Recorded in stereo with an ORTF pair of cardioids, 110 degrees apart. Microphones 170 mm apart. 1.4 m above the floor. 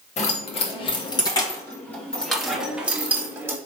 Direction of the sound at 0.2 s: 40° left.